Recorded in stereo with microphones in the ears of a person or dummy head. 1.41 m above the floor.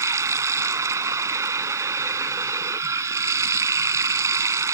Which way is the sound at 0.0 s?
20° right (ahead or behind).